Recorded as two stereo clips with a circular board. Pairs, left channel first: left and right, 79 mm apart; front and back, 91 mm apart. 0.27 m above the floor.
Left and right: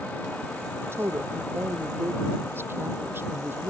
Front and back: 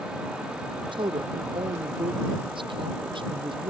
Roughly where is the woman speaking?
Behind right.